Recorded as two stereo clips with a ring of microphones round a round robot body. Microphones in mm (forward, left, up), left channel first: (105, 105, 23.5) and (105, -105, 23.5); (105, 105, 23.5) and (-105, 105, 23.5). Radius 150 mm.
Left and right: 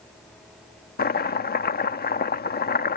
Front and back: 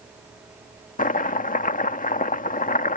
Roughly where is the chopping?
Ahead left.